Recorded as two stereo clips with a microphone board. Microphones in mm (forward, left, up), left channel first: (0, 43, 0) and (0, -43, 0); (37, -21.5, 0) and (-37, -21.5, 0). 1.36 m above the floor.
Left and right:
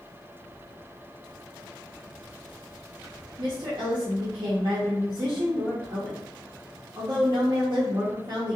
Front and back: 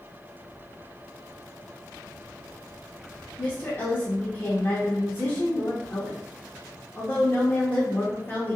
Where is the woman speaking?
60° right, 0.6 m.